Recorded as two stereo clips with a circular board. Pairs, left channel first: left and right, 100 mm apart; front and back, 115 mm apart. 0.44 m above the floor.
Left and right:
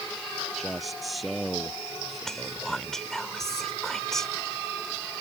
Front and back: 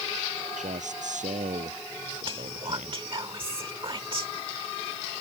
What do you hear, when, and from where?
0.6 s a man speaking: straight behind
2.2 s whispering: 175° left